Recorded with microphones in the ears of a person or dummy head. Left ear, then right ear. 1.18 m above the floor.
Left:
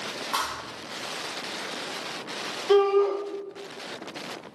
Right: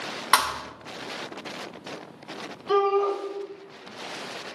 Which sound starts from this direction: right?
A thud, at 0.3 s.